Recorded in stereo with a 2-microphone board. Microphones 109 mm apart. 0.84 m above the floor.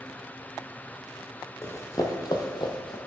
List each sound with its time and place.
1.6 s running footsteps: 25° left (ahead or behind), 1.2 m; by 3.0 s 50° left (ahead or behind), 1.3 m